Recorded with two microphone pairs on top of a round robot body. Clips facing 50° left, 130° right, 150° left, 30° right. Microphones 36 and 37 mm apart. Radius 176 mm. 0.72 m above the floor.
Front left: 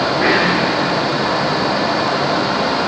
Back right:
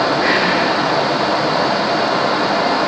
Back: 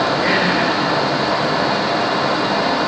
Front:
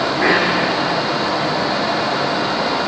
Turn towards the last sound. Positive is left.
turn(degrees=-25)